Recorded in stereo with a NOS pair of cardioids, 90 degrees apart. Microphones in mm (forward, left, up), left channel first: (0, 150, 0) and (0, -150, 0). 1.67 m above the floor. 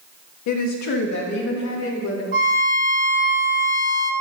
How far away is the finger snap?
No finger snap in this recording.